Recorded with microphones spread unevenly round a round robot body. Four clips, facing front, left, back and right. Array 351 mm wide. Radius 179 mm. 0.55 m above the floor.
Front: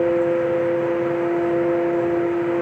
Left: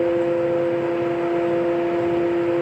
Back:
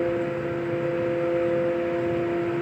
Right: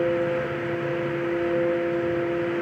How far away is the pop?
I don't hear a pop.